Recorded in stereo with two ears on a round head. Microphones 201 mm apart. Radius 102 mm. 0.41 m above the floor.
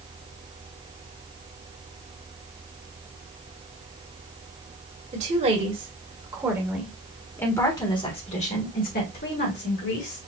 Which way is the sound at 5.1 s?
30° right (ahead or behind).